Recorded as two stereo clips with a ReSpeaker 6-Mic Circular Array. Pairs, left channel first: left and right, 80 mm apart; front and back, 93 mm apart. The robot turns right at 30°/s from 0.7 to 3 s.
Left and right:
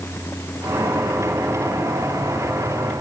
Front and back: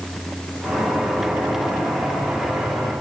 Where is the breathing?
No breathing in this recording.